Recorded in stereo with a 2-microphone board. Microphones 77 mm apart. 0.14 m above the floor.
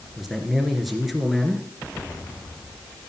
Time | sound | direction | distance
0.2 | a man speaking | centre (ahead or behind) | 2.5 m